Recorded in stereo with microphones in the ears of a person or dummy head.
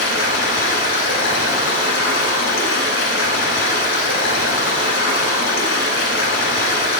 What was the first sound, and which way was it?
Running water, 70° left (ahead or behind).